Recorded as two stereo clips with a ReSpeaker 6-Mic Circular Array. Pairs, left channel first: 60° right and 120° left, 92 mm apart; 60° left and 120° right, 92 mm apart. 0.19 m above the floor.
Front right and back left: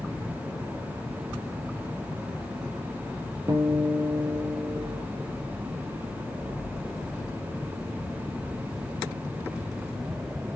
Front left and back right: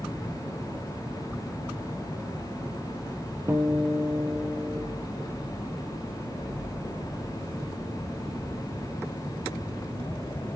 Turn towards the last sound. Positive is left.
turn(degrees=175)